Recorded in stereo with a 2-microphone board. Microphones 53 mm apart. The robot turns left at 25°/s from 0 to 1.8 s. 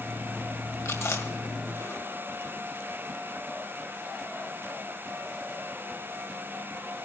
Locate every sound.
0.8 s chewing: 80° left, 1.9 m; by 2.6 s 65° left (ahead or behind), 1.9 m